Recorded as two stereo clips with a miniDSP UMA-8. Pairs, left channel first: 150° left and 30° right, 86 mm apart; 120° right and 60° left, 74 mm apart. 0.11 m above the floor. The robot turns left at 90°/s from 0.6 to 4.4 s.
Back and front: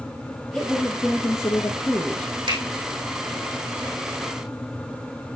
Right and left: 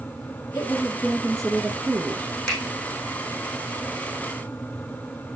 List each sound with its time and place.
0.5 s a woman speaking: 140° right, 1.3 m; by 2.4 s 60° left, 1.3 m
2.5 s a finger snap: 40° right, 5.5 m; by 2.6 s 55° right, 5.5 m